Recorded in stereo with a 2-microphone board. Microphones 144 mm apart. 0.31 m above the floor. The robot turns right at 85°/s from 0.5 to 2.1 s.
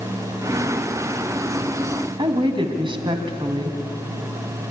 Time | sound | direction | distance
2.2 | a woman speaking | 35° right (ahead or behind) | 2.5 m